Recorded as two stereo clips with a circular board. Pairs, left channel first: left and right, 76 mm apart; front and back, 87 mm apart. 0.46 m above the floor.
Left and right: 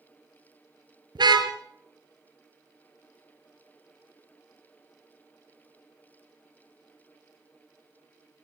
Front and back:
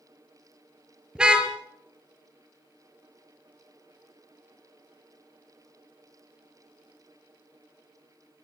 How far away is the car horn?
About 4.5 m.